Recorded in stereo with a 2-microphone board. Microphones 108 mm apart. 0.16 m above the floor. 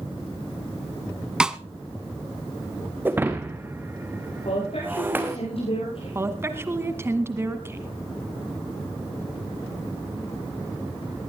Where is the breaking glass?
20° right (ahead or behind), 1.9 m.